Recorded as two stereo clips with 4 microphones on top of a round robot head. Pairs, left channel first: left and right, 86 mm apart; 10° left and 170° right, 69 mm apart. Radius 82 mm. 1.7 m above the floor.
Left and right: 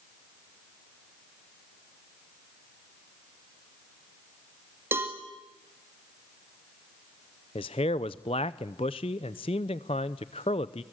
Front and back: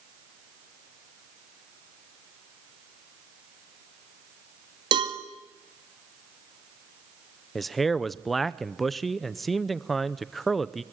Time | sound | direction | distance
4.9 | a cowbell | 160° right | 2.0 m
7.5 | a man speaking | 95° left | 0.6 m